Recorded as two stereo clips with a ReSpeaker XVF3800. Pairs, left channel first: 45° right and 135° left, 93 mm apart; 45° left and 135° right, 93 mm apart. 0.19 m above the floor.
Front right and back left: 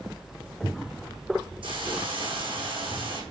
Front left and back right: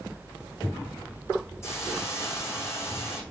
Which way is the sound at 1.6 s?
105° left.